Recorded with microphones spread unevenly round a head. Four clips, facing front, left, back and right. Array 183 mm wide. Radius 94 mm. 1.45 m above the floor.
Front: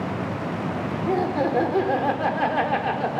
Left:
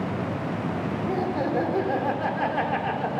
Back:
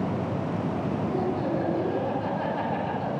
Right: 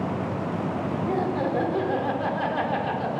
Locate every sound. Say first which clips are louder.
1.1 s laughter: even, front 7 dB; 5° left, 5 m; by 3.2 s 15° left, 4 m